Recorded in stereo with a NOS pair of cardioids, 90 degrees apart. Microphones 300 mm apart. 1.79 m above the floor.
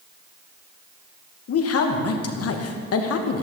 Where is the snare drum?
No snare drum in this recording.